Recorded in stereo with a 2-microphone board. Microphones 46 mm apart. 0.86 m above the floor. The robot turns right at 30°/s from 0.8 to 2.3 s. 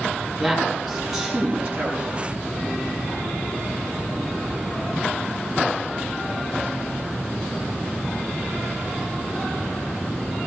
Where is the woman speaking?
Centre (ahead or behind), 7.5 m; by 2.2 s 40° right (ahead or behind), 7.5 m.